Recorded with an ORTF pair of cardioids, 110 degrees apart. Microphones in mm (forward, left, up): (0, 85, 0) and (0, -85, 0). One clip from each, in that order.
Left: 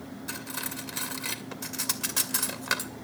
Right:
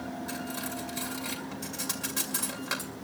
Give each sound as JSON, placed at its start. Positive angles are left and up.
{"t": 0.3, "sound": "cutlery clinking", "azimuth_deg": 35, "distance_m": 2.0}